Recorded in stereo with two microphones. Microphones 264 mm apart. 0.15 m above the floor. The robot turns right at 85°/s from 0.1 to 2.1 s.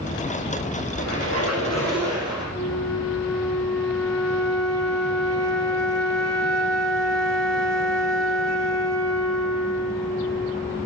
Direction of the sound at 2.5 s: 5° left (ahead or behind).